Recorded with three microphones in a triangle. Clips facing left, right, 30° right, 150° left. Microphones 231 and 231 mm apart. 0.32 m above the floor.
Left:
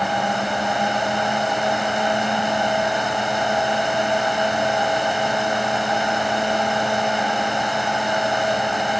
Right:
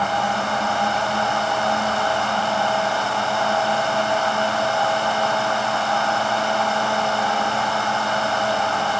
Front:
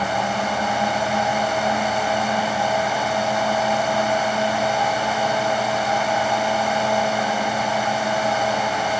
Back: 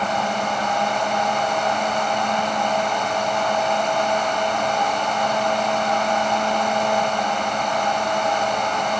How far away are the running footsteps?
I don't hear running footsteps.